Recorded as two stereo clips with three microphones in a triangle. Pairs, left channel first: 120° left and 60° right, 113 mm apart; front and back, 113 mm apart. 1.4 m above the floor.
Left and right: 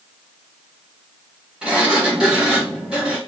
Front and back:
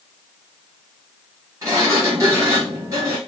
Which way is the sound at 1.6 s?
135° right.